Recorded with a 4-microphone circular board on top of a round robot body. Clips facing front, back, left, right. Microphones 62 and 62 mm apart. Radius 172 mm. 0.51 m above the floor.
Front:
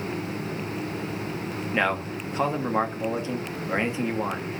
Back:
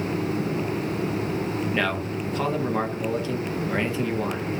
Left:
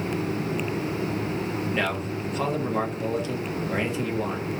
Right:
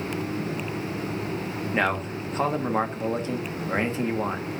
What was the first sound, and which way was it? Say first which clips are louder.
A man speaking: front 5 dB, right 6 dB; 60° right.